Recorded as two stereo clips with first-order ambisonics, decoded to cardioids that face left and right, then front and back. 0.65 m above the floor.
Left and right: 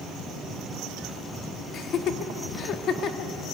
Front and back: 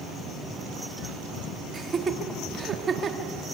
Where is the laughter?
125° left, 1.2 m.